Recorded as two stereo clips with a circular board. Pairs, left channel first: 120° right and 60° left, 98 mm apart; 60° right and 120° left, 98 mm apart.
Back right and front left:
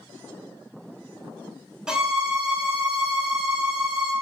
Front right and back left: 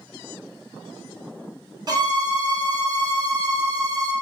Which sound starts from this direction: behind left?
A violin, at 1.9 s.